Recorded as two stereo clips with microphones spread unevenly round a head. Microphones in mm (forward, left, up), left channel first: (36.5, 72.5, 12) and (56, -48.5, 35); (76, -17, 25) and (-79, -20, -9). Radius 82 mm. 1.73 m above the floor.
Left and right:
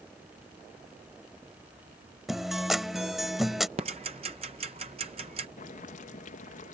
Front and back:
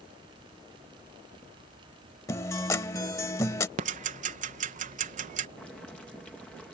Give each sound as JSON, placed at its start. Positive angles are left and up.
{"t": 2.3, "sound": "a guitar", "azimuth_deg": -15}
{"t": 3.8, "sound": "ticking", "azimuth_deg": -135}
{"t": 5.6, "sound": "boiling", "azimuth_deg": 85}